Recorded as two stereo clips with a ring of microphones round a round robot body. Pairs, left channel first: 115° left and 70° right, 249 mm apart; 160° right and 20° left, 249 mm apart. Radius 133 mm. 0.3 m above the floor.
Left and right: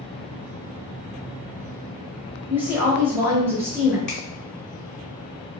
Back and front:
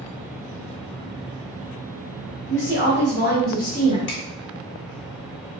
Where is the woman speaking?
145° right, 1.7 m; by 4.0 s 135° right, 1.2 m.